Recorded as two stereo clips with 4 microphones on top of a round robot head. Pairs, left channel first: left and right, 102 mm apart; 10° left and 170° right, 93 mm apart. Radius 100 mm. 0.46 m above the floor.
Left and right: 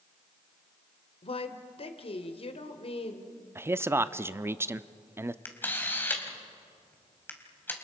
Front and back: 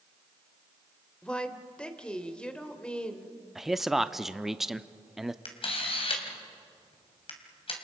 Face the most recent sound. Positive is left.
turn(degrees=20)